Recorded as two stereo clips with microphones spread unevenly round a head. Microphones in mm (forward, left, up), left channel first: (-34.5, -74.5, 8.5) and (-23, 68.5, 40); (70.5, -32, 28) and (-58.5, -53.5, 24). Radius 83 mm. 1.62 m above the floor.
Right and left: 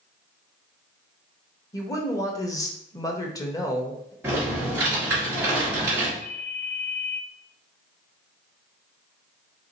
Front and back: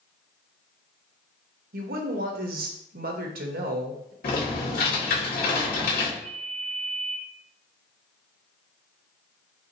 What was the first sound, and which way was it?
A woman speaking, 165° right.